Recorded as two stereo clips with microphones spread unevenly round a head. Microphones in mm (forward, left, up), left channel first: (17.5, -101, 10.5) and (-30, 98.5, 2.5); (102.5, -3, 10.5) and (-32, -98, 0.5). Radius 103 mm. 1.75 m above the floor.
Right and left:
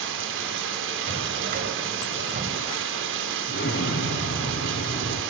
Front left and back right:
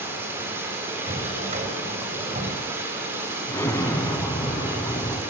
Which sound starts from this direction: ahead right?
An explosion, at 3.5 s.